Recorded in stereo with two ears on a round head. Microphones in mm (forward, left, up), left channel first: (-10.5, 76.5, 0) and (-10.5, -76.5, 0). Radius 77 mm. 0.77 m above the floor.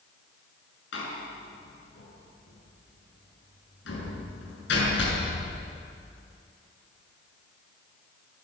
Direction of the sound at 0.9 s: 75° left (ahead or behind).